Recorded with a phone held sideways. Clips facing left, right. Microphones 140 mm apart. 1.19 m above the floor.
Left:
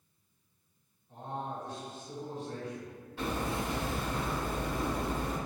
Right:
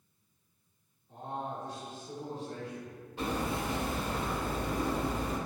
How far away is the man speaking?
About 1.7 m.